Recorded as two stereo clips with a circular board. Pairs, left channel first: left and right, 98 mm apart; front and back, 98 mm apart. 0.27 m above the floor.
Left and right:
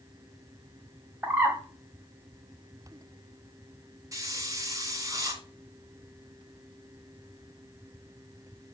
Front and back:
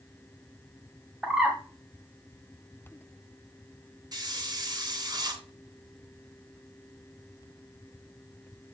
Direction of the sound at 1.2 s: 115° right.